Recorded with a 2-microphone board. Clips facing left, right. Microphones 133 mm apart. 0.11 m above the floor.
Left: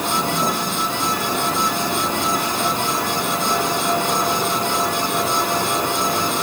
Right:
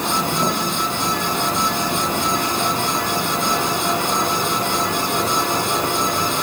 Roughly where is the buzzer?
No buzzer in this recording.